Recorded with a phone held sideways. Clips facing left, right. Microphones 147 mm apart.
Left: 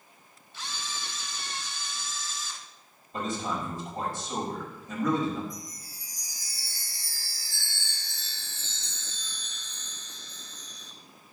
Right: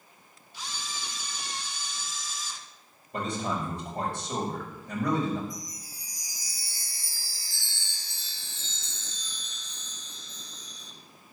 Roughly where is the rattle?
No rattle in this recording.